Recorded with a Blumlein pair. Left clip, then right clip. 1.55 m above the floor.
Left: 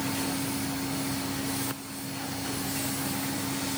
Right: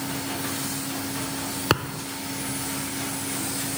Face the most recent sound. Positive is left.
turn(degrees=-50)